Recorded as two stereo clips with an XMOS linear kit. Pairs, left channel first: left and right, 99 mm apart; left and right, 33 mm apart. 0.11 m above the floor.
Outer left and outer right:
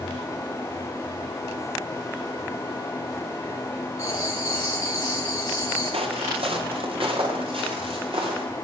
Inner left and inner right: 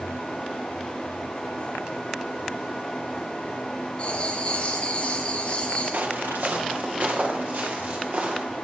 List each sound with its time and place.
4.0 s writing: 30° left (ahead or behind), 3 m
5.9 s footsteps: 70° right (ahead or behind), 2.5 m; by 8.4 s 65° right (ahead or behind), 6 m